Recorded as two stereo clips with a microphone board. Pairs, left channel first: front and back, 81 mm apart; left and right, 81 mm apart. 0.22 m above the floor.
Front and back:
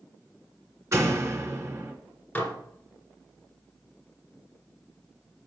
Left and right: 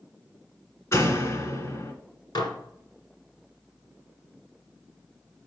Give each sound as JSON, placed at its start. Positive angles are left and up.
{"t": 0.9, "sound": "a door slam", "azimuth_deg": 135, "distance_m": 1.9}
{"t": 2.4, "sound": "dishes clattering", "azimuth_deg": 70, "distance_m": 1.9}